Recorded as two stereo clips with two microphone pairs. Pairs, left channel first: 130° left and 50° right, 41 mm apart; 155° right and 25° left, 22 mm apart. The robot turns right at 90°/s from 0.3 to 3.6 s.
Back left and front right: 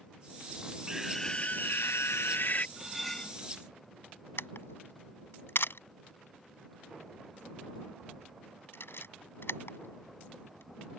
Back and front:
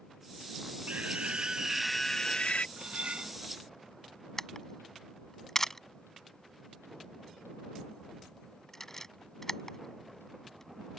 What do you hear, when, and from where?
0.9 s a scream: 20° left; by 2.7 s straight behind
2.8 s cutlery clinking: 15° left; by 3.4 s 75° left
4.4 s a camera shutter: 130° left